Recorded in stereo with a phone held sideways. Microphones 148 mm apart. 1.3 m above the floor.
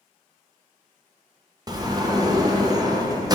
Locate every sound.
1.7 s a sliding door: 25° right (ahead or behind), 0.6 m